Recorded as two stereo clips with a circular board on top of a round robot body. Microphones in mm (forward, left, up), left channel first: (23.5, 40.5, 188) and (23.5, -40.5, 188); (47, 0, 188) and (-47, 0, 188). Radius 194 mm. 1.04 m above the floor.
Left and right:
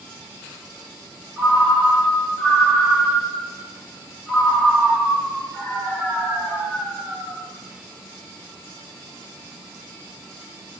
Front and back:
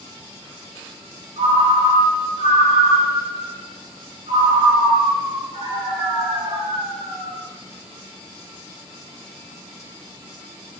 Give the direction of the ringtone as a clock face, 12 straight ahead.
6 o'clock.